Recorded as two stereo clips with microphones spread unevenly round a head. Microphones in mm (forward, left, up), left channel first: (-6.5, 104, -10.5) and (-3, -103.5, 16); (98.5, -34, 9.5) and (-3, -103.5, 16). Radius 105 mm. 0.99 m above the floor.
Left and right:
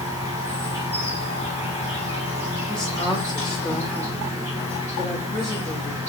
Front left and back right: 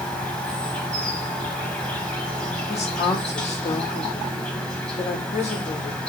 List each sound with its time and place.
0.0 s an insect: 45° right, 0.9 m
2.7 s a woman speaking: 5° left, 1.0 m